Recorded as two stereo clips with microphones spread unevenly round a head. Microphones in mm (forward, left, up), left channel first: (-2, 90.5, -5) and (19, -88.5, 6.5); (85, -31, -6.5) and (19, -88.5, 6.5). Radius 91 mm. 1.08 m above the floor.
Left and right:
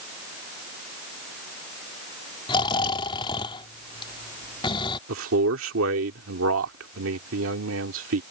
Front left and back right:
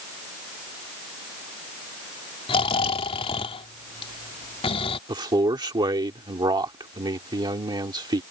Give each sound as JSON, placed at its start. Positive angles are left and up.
{"t": 2.5, "sound": "snoring", "azimuth_deg": 30}
{"t": 5.1, "sound": "a man speaking", "azimuth_deg": -100}